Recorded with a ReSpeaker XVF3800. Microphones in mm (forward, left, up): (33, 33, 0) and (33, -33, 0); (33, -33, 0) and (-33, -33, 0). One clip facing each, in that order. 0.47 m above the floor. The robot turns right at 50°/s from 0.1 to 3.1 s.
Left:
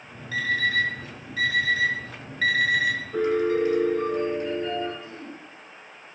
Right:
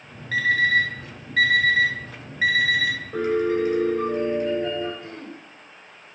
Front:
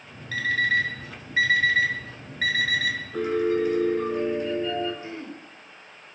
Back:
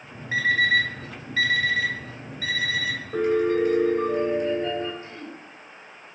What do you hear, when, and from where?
0.3 s an alarm clock: 120° right, 2 m; by 3.0 s 15° left, 2 m
3.1 s a piano: 160° right, 3.5 m
5.0 s throat clearing: 70° right, 0.9 m